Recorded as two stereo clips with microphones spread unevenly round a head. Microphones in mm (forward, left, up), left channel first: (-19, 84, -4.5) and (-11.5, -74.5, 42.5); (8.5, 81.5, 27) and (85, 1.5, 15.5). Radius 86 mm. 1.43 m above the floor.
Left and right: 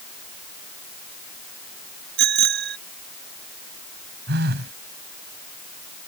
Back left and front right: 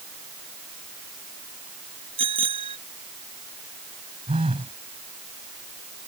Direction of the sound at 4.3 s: 110° right.